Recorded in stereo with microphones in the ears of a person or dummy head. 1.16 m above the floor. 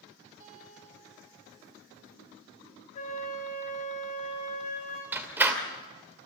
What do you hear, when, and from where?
0.4 s a guitar: 20° right (ahead or behind), 5 m
3.0 s a flute: 35° left (ahead or behind), 5 m
5.1 s a door slam: 10° right (ahead or behind), 2.5 m